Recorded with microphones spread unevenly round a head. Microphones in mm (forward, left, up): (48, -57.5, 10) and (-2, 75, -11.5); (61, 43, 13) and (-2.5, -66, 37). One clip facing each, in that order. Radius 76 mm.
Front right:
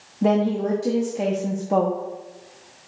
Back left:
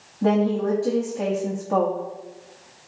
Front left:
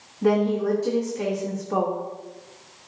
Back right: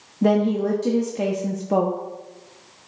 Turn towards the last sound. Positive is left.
turn(degrees=-145)